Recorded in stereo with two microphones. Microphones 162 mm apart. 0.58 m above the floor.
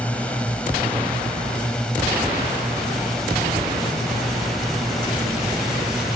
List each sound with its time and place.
0.0 s a drone: 5° left (ahead or behind); by 6.2 s centre (ahead or behind)